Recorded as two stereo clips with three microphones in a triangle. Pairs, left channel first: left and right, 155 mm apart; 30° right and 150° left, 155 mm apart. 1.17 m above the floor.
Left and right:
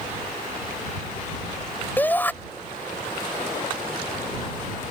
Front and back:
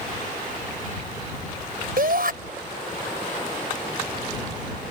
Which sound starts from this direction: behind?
A shout, at 2.0 s.